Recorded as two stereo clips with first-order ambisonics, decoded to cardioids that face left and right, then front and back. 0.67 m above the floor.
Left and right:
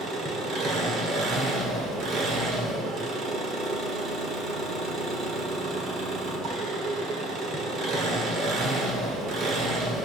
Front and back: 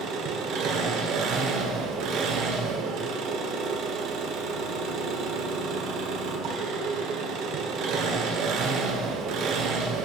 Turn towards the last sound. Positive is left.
turn(degrees=-140)